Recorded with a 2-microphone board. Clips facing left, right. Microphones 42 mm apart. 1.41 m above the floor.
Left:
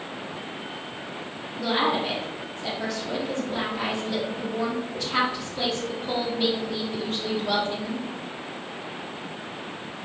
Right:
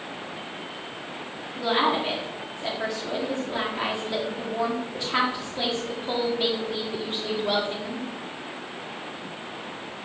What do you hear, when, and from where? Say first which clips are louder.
1.6 s a woman speaking: right 1 dB; 10° right (ahead or behind), 1.4 m